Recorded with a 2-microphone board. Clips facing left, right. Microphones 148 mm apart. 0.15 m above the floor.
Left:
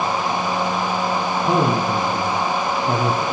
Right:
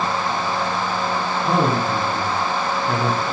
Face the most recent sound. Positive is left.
turn(degrees=35)  # may be behind; listen again after turning